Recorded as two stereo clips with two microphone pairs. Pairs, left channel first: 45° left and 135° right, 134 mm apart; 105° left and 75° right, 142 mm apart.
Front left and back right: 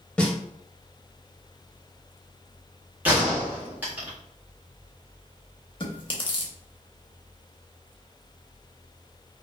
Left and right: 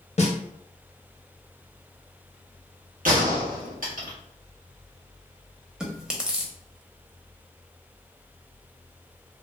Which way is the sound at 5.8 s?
15° left.